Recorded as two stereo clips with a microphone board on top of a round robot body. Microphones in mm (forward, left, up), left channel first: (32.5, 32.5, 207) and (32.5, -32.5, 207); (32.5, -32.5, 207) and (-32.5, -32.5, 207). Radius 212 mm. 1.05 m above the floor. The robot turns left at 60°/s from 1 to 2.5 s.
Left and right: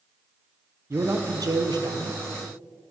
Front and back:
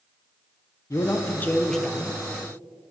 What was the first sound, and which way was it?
A man speaking, 40° right.